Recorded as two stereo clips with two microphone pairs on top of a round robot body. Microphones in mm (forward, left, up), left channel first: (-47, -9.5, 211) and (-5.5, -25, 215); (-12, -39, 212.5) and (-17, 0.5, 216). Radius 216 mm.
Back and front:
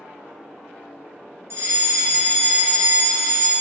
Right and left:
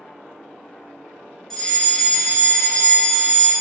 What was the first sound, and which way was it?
A fire alarm, 5° right.